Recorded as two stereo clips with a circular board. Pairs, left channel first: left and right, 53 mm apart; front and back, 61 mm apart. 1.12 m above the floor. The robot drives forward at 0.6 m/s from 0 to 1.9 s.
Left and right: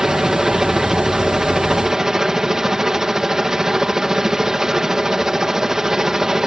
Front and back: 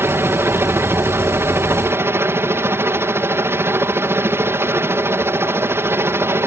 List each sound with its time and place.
0.0 s a helicopter: 170° right